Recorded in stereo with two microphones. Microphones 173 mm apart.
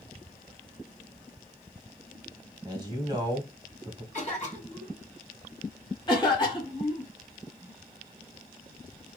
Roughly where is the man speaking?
Right.